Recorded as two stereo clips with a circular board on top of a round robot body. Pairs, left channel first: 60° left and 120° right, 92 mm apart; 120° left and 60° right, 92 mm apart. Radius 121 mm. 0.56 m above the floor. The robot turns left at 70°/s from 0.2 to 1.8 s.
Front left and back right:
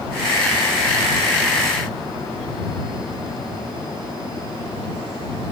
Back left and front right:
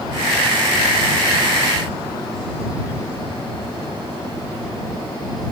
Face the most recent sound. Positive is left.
No sound to turn to.